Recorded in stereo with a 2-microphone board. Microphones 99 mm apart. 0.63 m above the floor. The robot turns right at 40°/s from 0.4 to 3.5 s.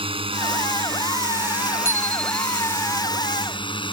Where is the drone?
65° right; by 3.9 s 60° left.